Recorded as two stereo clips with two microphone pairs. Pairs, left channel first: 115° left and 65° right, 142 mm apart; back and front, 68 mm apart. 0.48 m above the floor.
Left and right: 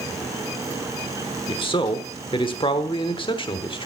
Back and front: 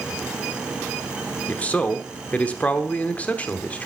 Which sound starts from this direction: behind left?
A man speaking, at 1.5 s.